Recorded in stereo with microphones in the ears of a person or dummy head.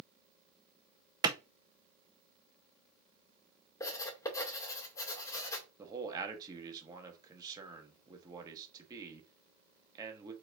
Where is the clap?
15° right (ahead or behind), 0.7 m.